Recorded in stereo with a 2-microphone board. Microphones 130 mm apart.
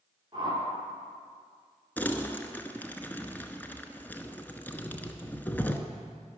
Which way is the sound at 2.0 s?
15° left (ahead or behind).